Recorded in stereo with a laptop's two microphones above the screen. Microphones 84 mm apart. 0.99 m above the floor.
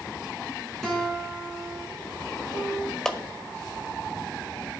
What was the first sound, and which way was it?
A guitar, 5° left (ahead or behind).